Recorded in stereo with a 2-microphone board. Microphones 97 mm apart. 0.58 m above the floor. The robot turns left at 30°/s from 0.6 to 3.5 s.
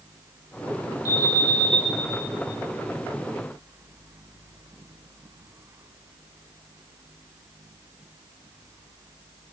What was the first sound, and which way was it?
An alarm, 30° left (ahead or behind).